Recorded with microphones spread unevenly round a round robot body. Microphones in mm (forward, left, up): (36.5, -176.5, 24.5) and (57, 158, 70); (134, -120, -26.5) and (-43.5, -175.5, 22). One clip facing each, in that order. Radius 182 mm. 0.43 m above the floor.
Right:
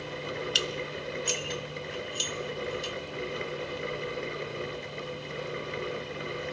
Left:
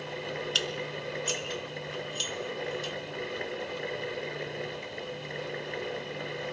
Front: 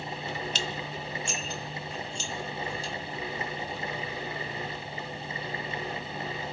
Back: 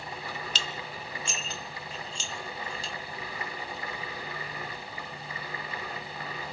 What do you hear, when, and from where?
0.6 s dishes clattering: 150° right, 1.0 m